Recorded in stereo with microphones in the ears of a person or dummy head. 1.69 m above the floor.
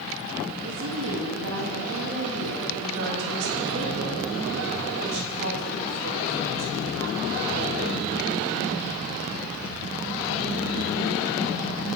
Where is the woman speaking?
75° right (ahead or behind), 3.5 m.